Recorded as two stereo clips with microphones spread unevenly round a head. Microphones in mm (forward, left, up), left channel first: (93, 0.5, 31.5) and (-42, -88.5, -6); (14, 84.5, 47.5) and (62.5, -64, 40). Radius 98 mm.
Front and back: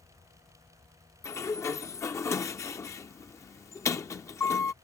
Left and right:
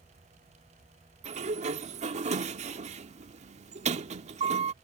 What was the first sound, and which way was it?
A sliding door, 25° right.